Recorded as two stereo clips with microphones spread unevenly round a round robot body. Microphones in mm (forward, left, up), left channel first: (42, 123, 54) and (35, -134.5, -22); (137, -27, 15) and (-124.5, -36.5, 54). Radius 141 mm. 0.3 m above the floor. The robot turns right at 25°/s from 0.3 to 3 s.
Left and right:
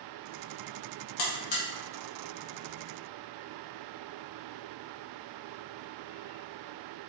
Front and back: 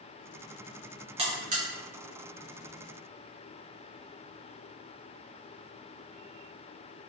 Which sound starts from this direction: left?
A buzzer, at 1.2 s.